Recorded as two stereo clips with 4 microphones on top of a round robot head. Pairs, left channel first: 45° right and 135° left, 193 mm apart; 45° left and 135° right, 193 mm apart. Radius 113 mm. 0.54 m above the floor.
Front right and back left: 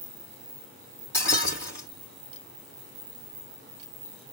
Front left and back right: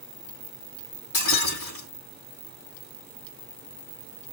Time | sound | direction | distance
1.1 | breaking glass | 35° left | 4.5 m